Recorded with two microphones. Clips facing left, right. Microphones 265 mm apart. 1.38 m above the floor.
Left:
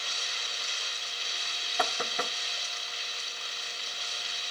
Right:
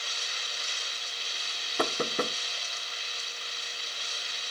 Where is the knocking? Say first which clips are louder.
Right 5 dB; 45° right (ahead or behind).